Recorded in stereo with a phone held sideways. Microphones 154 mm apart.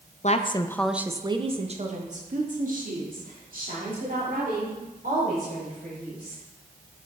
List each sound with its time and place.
0.2 s a woman speaking: 50° left (ahead or behind), 0.6 m; by 6.4 s 70° right (ahead or behind), 4.5 m